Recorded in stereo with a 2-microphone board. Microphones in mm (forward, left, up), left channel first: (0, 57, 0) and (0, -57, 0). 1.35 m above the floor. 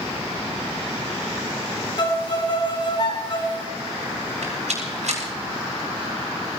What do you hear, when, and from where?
2.0 s a violin: 45° left (ahead or behind), 3 m
4.4 s a rattle: 85° right, 7.5 m